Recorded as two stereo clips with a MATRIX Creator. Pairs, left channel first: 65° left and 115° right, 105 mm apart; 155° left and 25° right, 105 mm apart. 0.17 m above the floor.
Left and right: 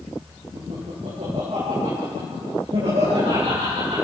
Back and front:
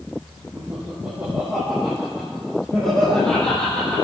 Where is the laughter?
90° right, 5.5 m; by 4.0 s 125° right, 7 m.